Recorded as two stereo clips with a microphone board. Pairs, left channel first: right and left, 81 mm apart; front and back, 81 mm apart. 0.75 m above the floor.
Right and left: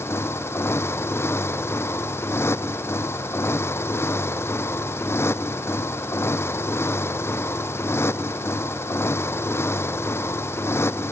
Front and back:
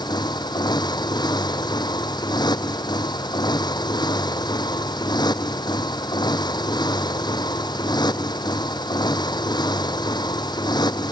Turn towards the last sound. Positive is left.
turn(degrees=-30)